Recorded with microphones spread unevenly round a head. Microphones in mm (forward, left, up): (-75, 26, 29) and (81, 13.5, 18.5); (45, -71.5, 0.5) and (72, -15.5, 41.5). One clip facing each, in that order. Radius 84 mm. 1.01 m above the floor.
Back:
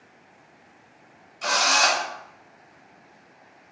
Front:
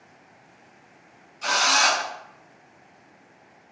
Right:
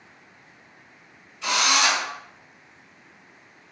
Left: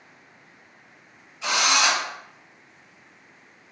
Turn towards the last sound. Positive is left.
turn(degrees=155)